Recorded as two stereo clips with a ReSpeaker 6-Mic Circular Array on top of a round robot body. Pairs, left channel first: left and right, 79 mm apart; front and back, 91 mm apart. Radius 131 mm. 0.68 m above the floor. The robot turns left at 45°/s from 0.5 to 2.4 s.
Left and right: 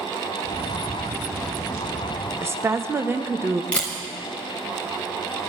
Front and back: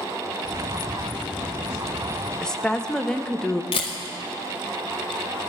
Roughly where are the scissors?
No scissors in this recording.